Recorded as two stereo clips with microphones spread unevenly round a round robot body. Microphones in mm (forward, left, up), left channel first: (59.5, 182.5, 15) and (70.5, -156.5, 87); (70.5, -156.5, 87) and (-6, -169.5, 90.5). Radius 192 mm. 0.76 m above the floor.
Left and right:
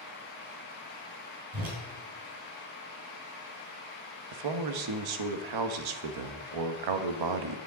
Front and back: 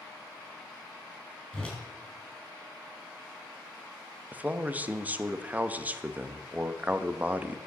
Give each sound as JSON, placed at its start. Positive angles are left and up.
{"t": 1.5, "sound": "a whoosh", "azimuth_deg": -70, "distance_m": 5.0}
{"t": 4.3, "sound": "a man speaking", "azimuth_deg": -100, "distance_m": 1.0}